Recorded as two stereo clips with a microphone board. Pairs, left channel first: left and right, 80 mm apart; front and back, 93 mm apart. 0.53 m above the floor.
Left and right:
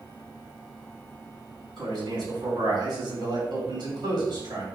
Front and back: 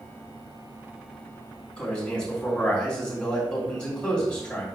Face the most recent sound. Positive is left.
turn(degrees=-80)